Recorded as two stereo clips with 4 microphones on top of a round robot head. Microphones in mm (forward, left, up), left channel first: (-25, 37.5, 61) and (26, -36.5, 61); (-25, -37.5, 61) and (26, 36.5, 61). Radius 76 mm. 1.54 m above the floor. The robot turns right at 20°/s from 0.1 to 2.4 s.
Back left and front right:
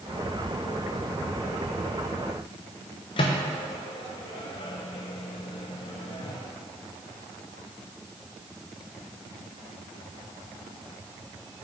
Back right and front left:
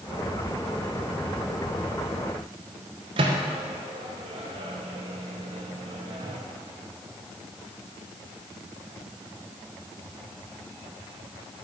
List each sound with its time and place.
3.2 s a microwave: 90° left, 0.7 m